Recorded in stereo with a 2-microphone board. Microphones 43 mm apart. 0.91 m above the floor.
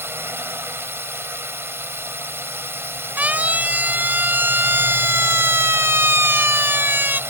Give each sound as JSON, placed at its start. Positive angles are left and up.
{"t": 0.0, "sound": "a drone", "side_deg": -65}
{"t": 3.2, "sound": "a siren", "side_deg": -40}